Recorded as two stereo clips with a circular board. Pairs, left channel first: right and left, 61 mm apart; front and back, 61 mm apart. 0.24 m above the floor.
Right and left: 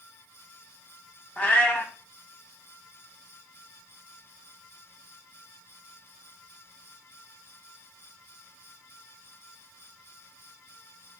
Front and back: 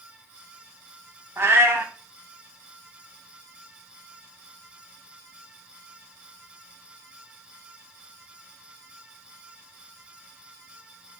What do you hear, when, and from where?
1.4 s a cat meowing: 145° right, 0.5 m